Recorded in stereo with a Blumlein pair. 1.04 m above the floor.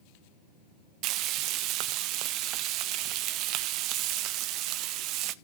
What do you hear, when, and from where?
1.0 s frying: 40° right, 0.9 m